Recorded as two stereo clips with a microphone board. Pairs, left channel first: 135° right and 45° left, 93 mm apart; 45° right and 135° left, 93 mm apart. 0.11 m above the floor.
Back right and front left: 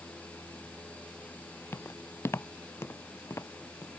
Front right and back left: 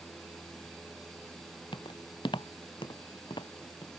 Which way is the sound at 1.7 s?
70° right.